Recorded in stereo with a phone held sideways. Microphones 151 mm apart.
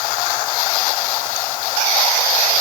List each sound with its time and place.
Only background noise.